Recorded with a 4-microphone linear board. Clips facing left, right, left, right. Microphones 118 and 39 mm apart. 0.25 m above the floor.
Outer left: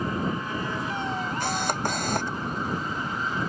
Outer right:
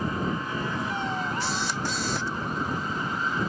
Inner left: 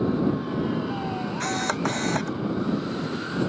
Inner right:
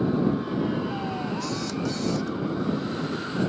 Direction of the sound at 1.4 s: 55° left (ahead or behind).